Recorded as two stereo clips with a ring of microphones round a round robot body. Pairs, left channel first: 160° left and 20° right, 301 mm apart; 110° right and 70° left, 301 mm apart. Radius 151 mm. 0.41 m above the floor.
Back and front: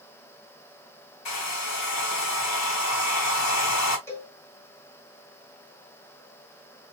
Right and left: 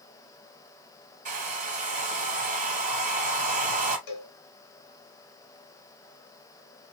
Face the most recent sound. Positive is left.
turn(degrees=-120)